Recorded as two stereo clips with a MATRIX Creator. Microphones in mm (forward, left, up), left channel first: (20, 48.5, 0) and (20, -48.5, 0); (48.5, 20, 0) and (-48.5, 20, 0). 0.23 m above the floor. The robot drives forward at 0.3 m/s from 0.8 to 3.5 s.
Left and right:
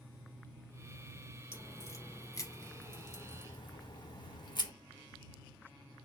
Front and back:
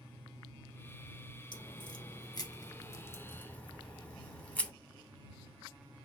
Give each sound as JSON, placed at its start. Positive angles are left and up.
{"t": 1.5, "sound": "a crack", "azimuth_deg": 30, "distance_m": 0.9}